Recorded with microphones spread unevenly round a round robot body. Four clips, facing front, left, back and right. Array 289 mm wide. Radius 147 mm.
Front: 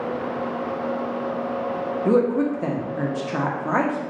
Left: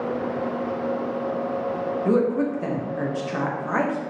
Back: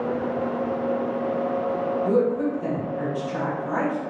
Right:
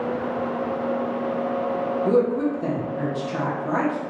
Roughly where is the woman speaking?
Ahead.